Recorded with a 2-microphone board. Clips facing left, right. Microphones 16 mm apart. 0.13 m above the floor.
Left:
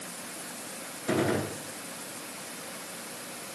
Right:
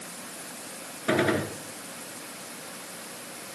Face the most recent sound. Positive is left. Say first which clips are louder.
# right 3 dB
turn(degrees=-40)  # may be behind; listen again after turning